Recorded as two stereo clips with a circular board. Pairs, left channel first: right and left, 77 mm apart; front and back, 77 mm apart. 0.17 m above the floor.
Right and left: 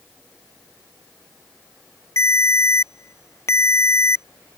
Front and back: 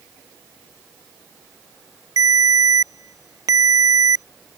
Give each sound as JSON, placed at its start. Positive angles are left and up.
{"t": 2.2, "sound": "a ringtone", "azimuth_deg": -140}